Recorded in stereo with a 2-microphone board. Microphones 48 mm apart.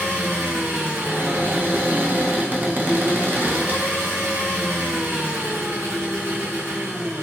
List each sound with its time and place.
0.0 s an engine running: 60° right (ahead or behind), 1.1 m
1.0 s a cupboard door: 40° right (ahead or behind), 0.5 m